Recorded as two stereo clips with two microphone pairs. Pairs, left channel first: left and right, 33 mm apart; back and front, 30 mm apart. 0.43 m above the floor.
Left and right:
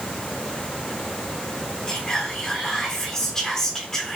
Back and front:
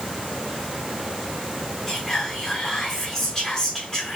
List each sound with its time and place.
1.9 s whispering: 130° left, 1.2 m